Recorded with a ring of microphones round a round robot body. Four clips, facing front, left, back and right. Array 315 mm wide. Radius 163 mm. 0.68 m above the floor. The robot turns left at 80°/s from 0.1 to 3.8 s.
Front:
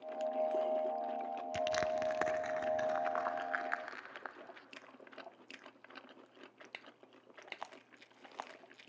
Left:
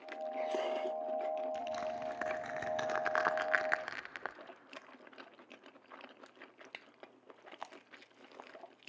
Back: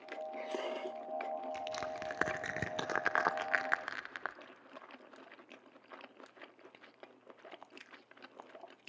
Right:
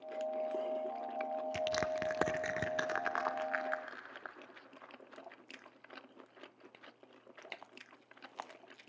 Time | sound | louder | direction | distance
1.5 | crushing | right 3 dB, front 6 dB | 55° right | 0.6 m